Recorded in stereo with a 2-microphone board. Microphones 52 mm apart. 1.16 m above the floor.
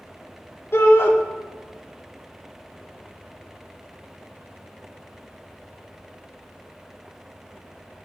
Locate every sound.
0.7 s a shout: 55° left (ahead or behind), 4 m